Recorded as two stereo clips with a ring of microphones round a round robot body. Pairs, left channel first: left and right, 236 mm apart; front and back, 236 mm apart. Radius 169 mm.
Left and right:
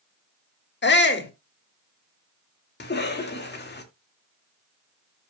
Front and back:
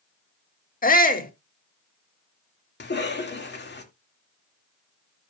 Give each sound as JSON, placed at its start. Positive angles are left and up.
{"t": 0.8, "sound": "a shout", "azimuth_deg": 50, "distance_m": 1.7}
{"t": 2.8, "sound": "a cough", "azimuth_deg": 45, "distance_m": 2.0}